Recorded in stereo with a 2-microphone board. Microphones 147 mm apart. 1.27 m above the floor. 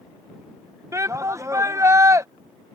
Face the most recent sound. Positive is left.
turn(degrees=-20)  # may be behind; listen again after turning